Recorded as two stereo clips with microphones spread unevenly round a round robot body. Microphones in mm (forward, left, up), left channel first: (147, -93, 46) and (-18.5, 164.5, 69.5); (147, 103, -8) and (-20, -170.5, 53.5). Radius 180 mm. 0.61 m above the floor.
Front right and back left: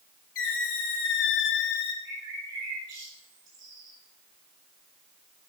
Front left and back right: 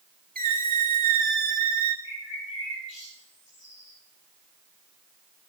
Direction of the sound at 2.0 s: 85° left.